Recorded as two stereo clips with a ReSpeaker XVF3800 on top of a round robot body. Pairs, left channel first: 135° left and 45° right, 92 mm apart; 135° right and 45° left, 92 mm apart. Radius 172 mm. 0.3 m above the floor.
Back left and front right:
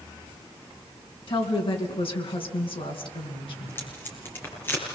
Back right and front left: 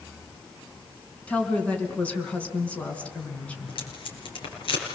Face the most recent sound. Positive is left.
turn(degrees=-160)